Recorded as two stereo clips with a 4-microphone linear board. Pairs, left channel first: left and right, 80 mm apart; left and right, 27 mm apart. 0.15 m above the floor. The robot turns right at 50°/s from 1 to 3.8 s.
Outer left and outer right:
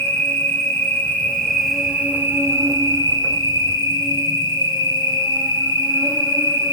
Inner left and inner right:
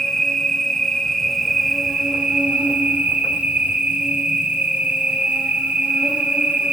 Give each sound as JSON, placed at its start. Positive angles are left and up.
{"t": 0.0, "sound": "an insect", "azimuth_deg": 145, "distance_m": 1.9}